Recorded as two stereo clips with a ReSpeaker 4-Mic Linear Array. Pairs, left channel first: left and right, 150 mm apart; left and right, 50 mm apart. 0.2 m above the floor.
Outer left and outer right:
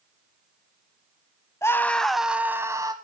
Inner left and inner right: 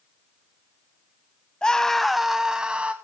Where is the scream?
20° left (ahead or behind), 1.1 m; by 2.9 s 25° right (ahead or behind), 1.3 m.